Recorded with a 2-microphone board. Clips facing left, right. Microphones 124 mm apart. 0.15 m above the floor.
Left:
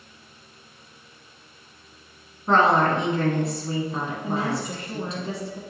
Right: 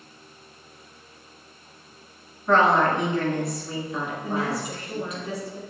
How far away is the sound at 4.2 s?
About 1.3 m.